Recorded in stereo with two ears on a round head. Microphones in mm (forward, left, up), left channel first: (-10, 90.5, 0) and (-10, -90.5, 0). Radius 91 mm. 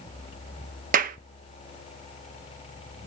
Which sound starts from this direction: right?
A clap, at 0.9 s.